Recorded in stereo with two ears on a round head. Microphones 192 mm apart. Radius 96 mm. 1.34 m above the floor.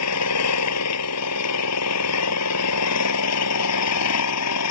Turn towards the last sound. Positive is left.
turn(degrees=85)